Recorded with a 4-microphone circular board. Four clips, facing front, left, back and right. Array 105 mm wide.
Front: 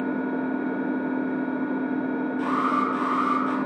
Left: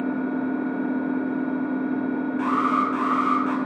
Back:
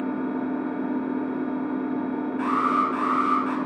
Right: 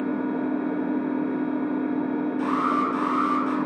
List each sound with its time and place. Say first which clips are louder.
0.0 s an engine running: even, front 1 dB; 45° right, 1.4 m
2.4 s an alarm: left 2 dB, back 2 dB; 145° left, 1.1 m